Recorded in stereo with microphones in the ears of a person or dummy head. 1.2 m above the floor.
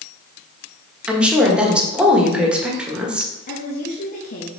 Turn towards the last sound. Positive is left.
turn(degrees=45)  # may be behind; listen again after turning